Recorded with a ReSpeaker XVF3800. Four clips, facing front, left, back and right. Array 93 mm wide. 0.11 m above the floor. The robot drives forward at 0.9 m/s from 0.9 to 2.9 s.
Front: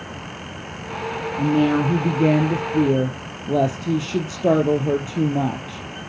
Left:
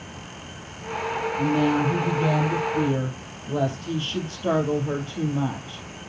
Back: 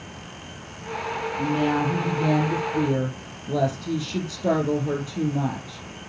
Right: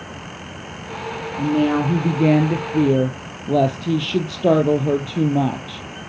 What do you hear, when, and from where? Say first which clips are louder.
1.4 s a woman speaking: right 4 dB, front 5 dB; 45° right, 3 m; by 5.8 s 75° right, 2.5 m